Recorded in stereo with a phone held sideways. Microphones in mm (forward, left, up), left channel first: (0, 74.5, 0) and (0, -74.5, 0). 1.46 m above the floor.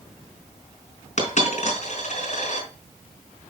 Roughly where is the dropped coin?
Left.